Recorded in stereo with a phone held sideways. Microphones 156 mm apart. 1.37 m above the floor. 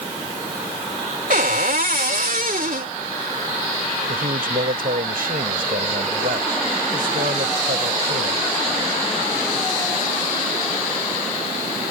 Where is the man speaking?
85° right.